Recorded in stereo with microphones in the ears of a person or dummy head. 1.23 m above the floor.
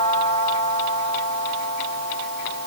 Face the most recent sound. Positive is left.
No sound to turn to.